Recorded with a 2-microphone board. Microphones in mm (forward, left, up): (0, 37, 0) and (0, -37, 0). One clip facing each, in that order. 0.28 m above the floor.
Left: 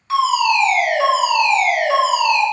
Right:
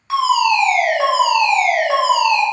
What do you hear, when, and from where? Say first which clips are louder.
0.1 s a fire alarm: right 1 dB; 10° right (ahead or behind), 1.9 m